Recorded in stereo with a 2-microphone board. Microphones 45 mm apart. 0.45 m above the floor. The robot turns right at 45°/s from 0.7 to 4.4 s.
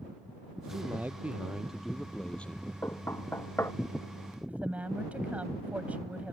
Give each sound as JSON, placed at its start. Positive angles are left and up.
{"t": 0.7, "sound": "a man speaking", "azimuth_deg": -55}
{"t": 2.8, "sound": "knocking", "side_deg": 75}
{"t": 4.5, "sound": "a woman speaking", "side_deg": -35}